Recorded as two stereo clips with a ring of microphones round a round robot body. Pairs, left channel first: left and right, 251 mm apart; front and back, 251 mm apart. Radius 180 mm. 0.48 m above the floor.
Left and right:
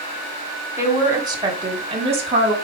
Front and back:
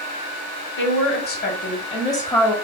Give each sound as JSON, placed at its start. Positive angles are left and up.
{"t": 0.8, "sound": "a woman speaking", "azimuth_deg": -15, "distance_m": 1.8}